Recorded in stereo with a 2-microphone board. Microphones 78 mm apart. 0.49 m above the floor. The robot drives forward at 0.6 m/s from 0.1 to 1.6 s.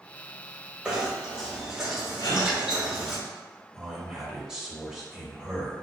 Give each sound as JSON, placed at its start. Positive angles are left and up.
{"t": 0.8, "sound": "knocking", "side_deg": -15, "distance_m": 1.2}
{"t": 2.2, "sound": "a gasp", "side_deg": 55, "distance_m": 1.3}
{"t": 3.7, "sound": "a man speaking", "side_deg": -10, "distance_m": 1.8}